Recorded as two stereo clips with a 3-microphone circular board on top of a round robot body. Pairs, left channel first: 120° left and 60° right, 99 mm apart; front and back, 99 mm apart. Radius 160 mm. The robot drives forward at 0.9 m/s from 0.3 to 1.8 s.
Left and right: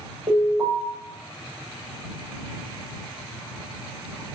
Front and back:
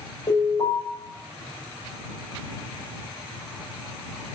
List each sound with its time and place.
0.3 s an alarm: 30° right, 5 m